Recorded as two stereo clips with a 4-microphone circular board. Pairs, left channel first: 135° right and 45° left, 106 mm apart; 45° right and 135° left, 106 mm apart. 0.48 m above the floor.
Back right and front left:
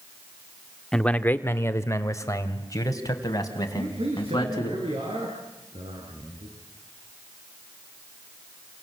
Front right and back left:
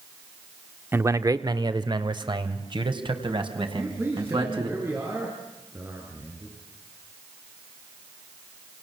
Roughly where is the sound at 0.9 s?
Behind left.